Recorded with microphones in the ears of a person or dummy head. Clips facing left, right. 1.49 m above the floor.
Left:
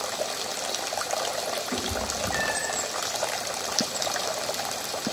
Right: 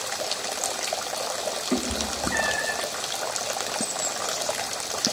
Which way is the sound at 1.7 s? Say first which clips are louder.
Right 3 dB; 50° right (ahead or behind).